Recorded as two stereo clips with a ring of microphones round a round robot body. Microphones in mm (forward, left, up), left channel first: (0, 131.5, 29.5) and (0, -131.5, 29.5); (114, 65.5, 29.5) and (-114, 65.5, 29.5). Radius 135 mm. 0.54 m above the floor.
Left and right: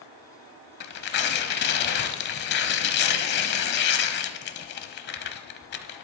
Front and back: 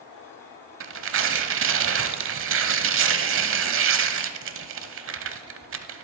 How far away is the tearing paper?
About 0.8 m.